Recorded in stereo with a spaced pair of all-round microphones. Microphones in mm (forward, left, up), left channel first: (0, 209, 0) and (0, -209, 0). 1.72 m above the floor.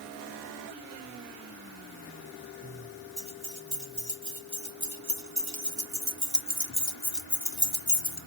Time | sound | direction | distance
3.2 | keys jangling | 45° right (ahead or behind) | 2.5 m